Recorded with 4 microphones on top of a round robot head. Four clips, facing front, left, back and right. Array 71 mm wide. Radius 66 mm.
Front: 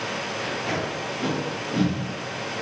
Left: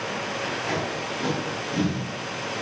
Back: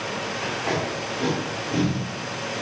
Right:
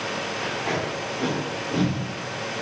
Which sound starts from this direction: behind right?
Tape being pulled, at 0.4 s.